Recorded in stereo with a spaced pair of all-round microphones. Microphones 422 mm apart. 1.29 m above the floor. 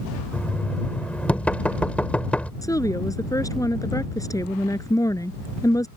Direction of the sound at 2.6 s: 10° left (ahead or behind).